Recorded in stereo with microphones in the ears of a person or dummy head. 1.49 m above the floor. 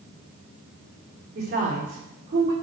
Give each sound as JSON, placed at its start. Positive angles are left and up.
{"t": 1.4, "sound": "a woman speaking", "side_deg": -45, "distance_m": 4.0}